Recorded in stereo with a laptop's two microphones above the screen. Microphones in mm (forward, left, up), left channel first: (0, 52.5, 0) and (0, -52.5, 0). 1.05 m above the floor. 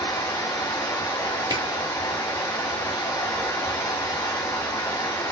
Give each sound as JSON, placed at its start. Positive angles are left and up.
{"t": 0.0, "sound": "running water", "side_deg": 35, "distance_m": 2.0}
{"t": 1.5, "sound": "a camera shutter", "side_deg": -40, "distance_m": 1.0}